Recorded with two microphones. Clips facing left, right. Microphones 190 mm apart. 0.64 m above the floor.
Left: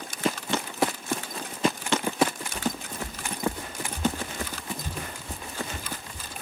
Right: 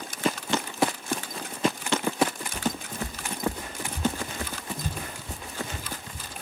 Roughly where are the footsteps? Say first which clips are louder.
Right 1 dB; right.